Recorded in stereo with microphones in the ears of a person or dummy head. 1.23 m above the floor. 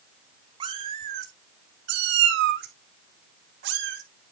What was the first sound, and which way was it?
A cat meowing, 25° right (ahead or behind).